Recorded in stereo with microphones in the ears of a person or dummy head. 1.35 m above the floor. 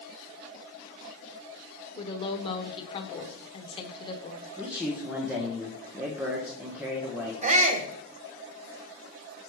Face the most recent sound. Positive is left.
turn(degrees=-40)  # may be behind; listen again after turning